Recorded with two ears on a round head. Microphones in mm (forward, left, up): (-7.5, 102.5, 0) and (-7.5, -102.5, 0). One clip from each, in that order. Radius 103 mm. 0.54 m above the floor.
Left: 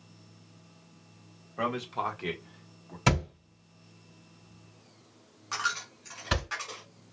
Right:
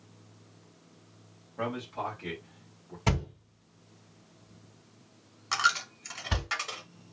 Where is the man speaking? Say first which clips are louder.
Left 3 dB; 50° left (ahead or behind), 1.4 m; by 3.0 s 35° left (ahead or behind), 1.2 m.